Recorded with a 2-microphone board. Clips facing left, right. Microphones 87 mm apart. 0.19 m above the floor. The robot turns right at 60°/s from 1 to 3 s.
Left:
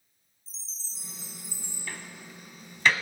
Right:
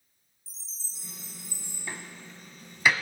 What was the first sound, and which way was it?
A chime, 10° right.